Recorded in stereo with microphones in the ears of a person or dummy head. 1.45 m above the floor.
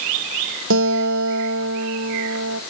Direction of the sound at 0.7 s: 75° right (ahead or behind).